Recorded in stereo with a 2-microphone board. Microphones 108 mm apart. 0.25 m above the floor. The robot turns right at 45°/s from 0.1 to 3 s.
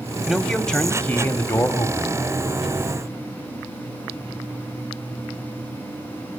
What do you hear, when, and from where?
0.3 s a man speaking: 5° right (ahead or behind), 1.4 m; by 2.2 s 30° left (ahead or behind), 1.4 m